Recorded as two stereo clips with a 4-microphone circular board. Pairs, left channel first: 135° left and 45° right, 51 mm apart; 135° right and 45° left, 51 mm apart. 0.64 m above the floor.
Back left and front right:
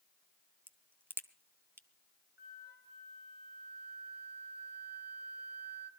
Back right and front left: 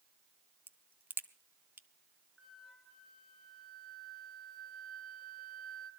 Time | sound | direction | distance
0.7 | a crack | 5° right | 0.8 m
2.4 | a flute | 45° right | 1.1 m